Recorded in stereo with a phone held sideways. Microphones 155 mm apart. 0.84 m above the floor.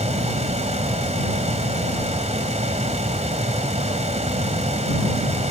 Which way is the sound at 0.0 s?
45° right (ahead or behind).